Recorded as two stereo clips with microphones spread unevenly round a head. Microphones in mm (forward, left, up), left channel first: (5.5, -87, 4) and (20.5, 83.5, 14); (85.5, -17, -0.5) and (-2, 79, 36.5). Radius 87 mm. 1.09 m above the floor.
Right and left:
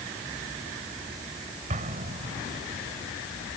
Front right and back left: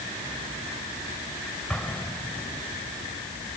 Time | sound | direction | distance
1.7 | an explosion | 40° left | ?